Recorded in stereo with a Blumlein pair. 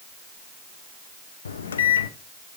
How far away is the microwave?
About 0.6 m.